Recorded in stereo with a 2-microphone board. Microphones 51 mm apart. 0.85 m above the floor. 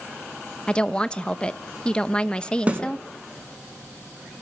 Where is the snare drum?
25° right (ahead or behind), 4.5 m.